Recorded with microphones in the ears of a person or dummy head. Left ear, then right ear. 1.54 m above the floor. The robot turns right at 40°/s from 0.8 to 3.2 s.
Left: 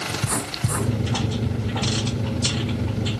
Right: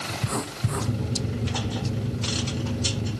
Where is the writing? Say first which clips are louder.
Left 3 dB; 15° left (ahead or behind), 6.5 m; by 2.1 s 40° right (ahead or behind), 6.5 m.